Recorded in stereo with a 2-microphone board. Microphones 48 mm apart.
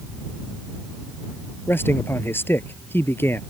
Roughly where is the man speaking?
Left.